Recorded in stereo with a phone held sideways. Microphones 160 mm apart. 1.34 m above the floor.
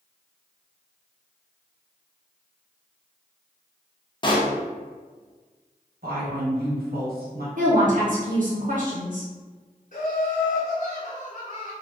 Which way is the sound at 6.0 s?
75° right (ahead or behind).